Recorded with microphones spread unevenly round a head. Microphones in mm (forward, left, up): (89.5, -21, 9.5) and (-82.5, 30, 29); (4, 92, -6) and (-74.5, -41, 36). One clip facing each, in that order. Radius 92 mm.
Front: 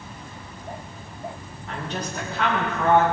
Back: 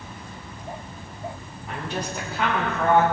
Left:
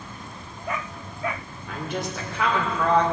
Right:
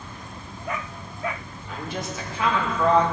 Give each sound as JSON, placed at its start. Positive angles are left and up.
{"t": 1.7, "sound": "a woman speaking", "azimuth_deg": 80, "distance_m": 3.5}